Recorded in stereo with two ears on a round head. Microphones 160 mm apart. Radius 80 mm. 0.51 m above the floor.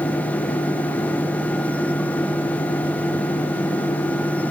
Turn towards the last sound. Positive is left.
No sound to turn to.